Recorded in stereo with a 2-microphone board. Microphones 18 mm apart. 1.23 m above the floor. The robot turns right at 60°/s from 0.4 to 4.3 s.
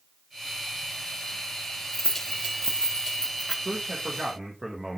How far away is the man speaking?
About 1.4 m.